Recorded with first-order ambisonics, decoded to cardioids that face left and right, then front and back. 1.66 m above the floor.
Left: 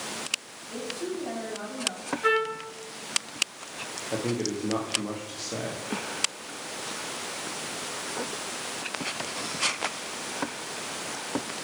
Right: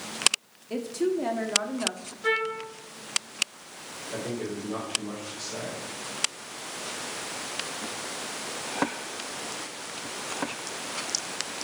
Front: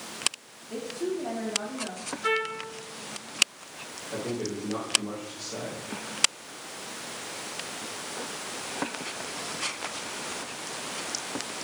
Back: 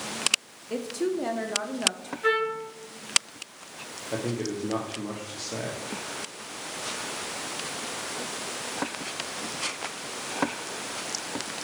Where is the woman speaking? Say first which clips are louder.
Right 6 dB, back 3 dB; 140° right, 0.8 m.